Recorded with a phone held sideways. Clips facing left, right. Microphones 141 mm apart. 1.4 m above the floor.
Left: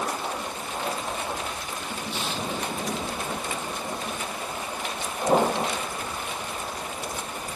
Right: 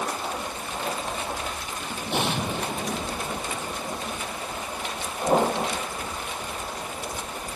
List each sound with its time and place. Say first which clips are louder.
2.1 s an explosion: right 6 dB; 70° right (ahead or behind)